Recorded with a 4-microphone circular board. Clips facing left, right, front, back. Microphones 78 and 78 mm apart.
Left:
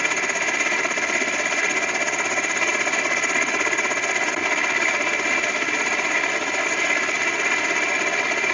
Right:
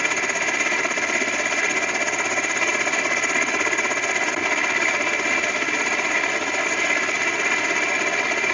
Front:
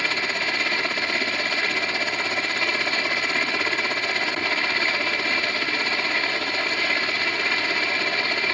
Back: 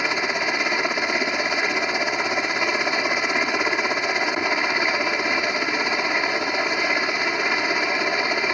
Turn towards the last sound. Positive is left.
turn(degrees=180)